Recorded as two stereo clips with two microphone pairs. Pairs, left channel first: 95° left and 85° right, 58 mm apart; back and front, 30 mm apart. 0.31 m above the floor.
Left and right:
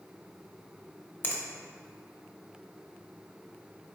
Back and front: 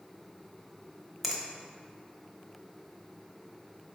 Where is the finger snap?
85° left, 0.7 m.